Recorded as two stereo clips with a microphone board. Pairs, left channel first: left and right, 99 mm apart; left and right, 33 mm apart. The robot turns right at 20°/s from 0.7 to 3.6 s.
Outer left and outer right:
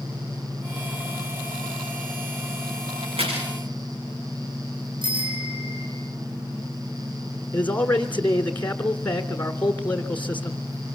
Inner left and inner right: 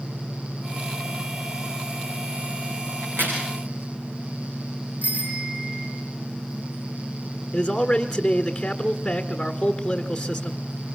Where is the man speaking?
15° left (ahead or behind), 1.4 m.